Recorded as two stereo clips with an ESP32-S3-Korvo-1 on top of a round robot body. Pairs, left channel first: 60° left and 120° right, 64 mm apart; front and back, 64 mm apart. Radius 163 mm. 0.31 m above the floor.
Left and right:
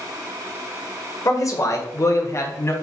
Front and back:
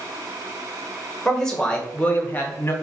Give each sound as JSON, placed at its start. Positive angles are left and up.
{"t": 1.2, "sound": "a man speaking", "azimuth_deg": 80, "distance_m": 1.7}